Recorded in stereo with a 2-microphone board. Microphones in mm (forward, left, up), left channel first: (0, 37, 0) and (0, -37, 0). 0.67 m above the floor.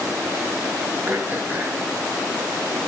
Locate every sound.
1.1 s throat clearing: 30° right (ahead or behind), 2.5 m